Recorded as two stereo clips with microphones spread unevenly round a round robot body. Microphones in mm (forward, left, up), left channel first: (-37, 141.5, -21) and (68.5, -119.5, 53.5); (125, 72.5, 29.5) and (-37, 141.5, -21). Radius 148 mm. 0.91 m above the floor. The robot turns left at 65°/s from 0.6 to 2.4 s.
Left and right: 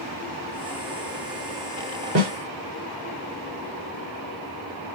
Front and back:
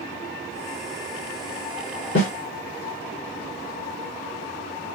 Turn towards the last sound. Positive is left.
turn(degrees=-55)